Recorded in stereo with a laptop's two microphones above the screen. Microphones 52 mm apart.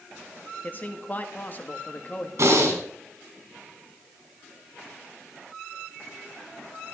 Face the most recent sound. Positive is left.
turn(degrees=-70)  # may be behind; listen again after turning